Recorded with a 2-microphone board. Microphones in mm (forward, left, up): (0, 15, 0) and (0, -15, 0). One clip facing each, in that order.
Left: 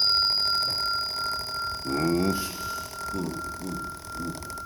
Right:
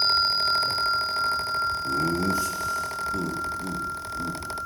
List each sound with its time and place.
1.9 s laughter: 55° left (ahead or behind), 0.7 m; by 4.4 s 10° right (ahead or behind), 1.6 m